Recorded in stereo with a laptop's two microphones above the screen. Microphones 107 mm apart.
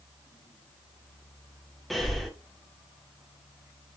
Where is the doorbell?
I don't hear a doorbell.